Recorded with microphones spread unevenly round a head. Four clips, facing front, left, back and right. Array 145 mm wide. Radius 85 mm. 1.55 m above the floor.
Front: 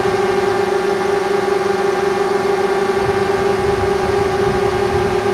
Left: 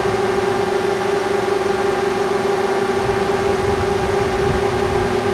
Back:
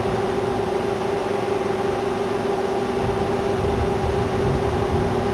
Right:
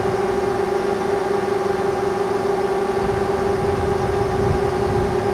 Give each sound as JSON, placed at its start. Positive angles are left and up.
{"t": 0.0, "sound": "a drone", "azimuth_deg": 20}